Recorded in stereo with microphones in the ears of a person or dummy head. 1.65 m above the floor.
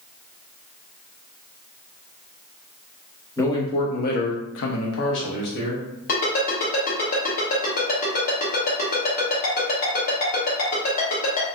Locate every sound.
3.4 s a man speaking: 20° left (ahead or behind), 0.8 m; by 5.8 s 55° left (ahead or behind), 1.1 m
6.1 s a ringtone: 45° left (ahead or behind), 1.1 m